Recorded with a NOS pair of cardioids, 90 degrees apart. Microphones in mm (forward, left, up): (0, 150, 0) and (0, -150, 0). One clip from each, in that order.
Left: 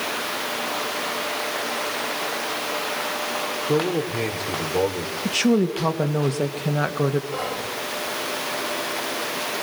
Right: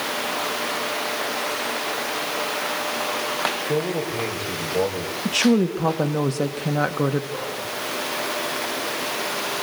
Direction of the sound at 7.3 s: 45° left.